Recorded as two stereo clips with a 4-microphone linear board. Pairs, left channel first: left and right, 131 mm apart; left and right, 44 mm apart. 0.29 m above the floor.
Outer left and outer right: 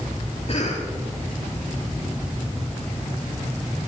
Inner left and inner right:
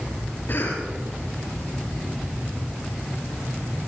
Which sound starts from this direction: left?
A cough, at 0.5 s.